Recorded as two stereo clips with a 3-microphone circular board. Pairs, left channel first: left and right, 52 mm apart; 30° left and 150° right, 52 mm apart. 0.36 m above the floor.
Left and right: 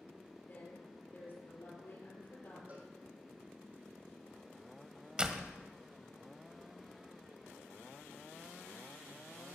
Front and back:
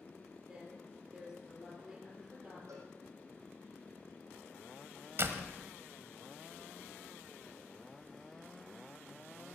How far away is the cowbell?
About 4 m.